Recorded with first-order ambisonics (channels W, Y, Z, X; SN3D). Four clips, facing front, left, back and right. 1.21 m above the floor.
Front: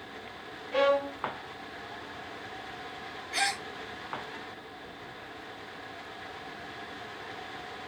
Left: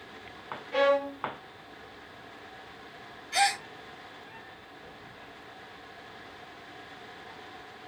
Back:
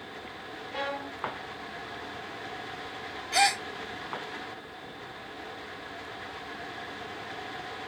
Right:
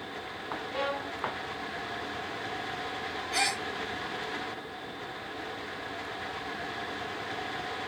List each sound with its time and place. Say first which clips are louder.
0.7 s a violin: left 10 dB, front 9 dB; 50° left, 0.9 m
3.3 s a gasp: left 4 dB, back 6 dB; straight behind, 1.1 m